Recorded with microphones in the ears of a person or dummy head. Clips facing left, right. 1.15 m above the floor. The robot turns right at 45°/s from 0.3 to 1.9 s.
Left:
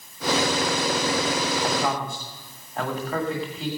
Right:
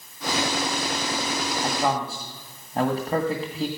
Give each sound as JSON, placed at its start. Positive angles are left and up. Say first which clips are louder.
{"t": 1.6, "sound": "a man speaking", "louder": "even", "side_deg": -20, "distance_m": 1.5}